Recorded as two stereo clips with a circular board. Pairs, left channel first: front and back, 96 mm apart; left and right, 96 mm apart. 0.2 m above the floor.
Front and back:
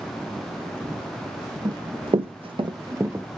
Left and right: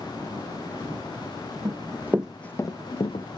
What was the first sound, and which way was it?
Running footsteps, 140° right.